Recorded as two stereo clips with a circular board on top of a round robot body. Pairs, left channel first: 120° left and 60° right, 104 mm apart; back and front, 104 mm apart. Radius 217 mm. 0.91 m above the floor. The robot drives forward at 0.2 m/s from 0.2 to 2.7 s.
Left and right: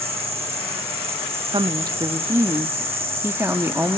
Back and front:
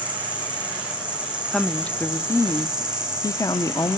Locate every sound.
0.0 s an insect: 75° right, 3.5 m; by 4.0 s 85° right, 3.5 m
1.5 s a woman speaking: 95° right, 0.5 m; by 4.0 s 125° right, 0.6 m